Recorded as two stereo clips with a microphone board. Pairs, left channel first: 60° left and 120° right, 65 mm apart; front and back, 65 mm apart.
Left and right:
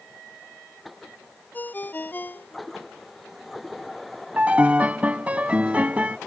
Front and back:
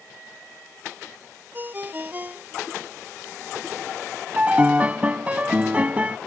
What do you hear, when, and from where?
1.5 s a ringtone: 120° left
4.4 s a piano: 150° right